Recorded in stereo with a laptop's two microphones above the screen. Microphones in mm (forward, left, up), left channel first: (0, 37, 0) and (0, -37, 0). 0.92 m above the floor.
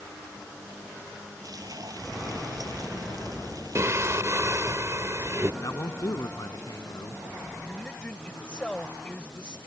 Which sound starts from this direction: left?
A man speaking, at 5.6 s.